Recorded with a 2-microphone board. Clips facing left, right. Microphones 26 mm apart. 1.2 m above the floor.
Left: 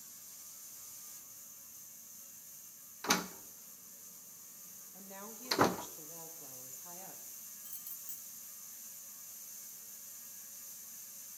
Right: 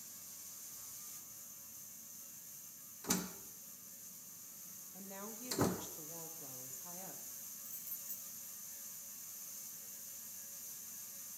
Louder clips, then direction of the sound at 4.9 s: Right 1 dB; 5° left (ahead or behind).